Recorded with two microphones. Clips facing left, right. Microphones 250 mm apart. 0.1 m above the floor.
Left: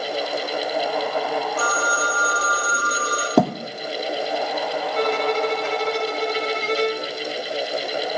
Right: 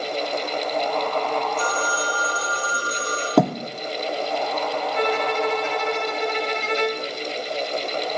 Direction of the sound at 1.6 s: 75° left (ahead or behind).